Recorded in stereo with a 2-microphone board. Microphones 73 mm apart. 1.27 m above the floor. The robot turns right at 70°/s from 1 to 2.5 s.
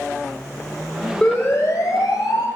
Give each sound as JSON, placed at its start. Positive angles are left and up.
{"t": 1.2, "sound": "a siren", "side_deg": 15, "distance_m": 8.0}